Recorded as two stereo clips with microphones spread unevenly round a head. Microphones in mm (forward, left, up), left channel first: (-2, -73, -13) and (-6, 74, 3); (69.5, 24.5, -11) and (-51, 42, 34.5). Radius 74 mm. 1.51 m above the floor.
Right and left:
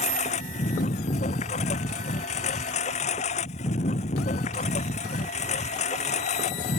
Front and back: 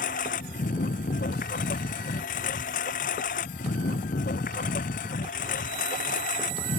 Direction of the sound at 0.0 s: 40° right.